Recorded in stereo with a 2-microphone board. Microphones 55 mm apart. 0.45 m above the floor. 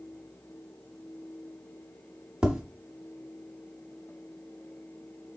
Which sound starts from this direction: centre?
Tapping, at 2.4 s.